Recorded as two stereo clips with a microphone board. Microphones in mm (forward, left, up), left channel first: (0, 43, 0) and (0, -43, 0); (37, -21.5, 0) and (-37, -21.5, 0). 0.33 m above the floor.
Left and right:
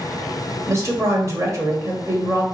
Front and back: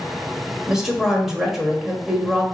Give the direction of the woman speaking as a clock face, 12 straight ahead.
3 o'clock.